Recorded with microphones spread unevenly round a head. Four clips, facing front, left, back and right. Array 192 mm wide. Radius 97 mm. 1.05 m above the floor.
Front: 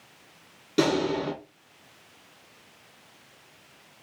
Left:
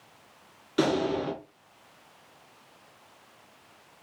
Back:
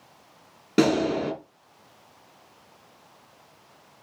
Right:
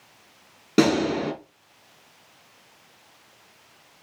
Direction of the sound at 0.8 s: 110° right.